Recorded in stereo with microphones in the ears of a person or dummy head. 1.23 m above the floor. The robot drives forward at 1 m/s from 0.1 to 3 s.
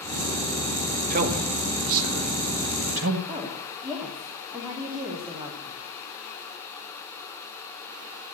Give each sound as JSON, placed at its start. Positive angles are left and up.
{"t": 1.1, "sound": "a man speaking", "side_deg": -45, "distance_m": 1.8}
{"t": 3.3, "sound": "a woman speaking", "side_deg": -20, "distance_m": 2.5}